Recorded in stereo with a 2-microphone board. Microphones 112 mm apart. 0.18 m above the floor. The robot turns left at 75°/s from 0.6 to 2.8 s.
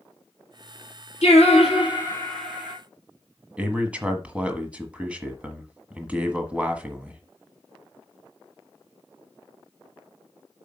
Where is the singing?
100° left, 3.5 m; by 2.8 s 15° right, 3.5 m.